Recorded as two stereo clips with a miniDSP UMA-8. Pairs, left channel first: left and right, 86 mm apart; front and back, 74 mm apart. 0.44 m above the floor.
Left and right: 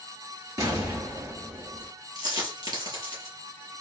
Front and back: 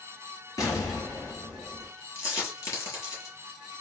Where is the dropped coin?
50° right, 4.5 m.